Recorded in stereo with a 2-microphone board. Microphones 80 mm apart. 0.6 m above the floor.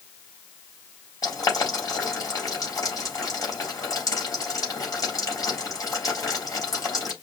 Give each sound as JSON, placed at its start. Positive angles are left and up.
{"t": 1.2, "sound": "boiling", "side_deg": 45, "distance_m": 4.0}